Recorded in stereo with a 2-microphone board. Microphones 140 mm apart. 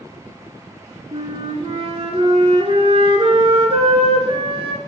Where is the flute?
45° right (ahead or behind), 0.9 m.